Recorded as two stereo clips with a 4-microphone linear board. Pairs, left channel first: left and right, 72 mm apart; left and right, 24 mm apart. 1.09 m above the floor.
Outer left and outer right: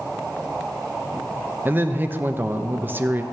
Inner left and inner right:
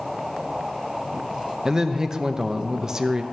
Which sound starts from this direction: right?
A man speaking, at 1.6 s.